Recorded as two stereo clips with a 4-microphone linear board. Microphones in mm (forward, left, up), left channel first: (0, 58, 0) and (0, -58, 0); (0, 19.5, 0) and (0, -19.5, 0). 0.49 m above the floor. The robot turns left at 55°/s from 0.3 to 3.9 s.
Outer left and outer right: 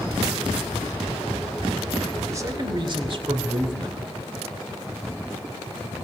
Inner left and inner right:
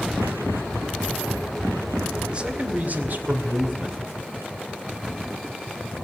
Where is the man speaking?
35° right, 2.0 m; by 4.0 s 120° right, 2.0 m.